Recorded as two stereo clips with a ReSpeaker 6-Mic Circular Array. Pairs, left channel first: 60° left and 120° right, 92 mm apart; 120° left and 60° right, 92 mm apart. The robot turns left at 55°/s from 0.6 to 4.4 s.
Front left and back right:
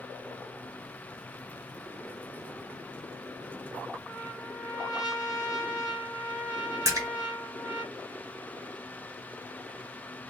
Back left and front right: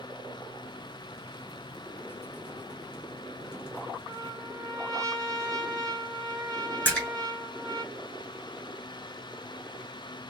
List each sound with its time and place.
4.1 s a trumpet: 20° right, 1.3 m; by 7.8 s 40° right, 1.3 m
6.8 s a splash: 170° right, 2 m